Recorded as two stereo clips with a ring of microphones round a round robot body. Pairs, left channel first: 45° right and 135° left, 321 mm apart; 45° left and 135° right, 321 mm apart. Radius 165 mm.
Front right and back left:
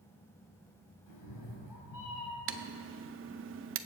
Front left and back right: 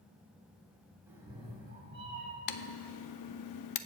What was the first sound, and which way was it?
A cat meowing, 50° right.